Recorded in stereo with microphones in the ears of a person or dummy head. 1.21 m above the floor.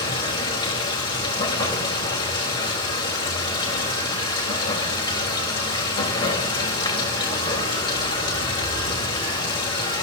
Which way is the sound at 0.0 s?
25° left (ahead or behind).